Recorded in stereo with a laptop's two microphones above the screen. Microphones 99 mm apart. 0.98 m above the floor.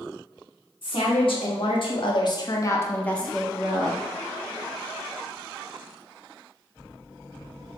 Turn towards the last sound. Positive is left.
turn(degrees=-15)  # may be behind; listen again after turning